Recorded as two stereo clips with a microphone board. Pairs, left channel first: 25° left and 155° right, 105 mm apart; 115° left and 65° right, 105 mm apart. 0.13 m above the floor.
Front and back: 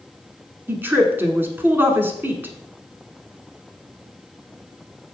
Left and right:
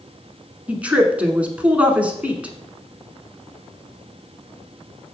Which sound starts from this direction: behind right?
A woman speaking, at 0.7 s.